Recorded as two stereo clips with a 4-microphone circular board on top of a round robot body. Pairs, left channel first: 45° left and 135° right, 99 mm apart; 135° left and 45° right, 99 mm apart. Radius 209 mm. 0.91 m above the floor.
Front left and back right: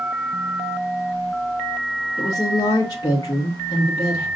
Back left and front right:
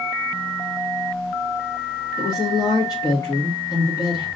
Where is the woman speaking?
90° left, 1.6 m.